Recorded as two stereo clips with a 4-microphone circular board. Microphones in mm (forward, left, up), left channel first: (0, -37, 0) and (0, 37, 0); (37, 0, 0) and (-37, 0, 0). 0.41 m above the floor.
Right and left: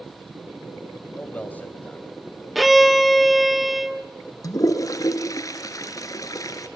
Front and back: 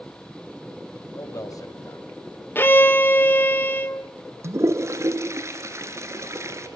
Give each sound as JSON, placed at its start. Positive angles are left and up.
{"t": 1.1, "sound": "a man speaking", "azimuth_deg": -25, "distance_m": 2.5}
{"t": 2.5, "sound": "a violin", "azimuth_deg": 0, "distance_m": 1.0}
{"t": 4.4, "sound": "a toilet flushing", "azimuth_deg": -130, "distance_m": 2.0}